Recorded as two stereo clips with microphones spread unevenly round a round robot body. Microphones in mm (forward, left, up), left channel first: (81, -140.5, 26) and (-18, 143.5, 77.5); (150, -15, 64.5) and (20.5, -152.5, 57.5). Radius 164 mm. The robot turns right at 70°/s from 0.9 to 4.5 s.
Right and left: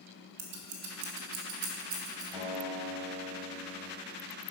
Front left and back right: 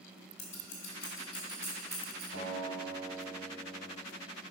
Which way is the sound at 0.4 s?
100° left.